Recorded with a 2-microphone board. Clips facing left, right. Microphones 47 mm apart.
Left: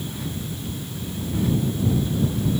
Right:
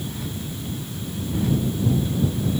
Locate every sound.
Only background noise.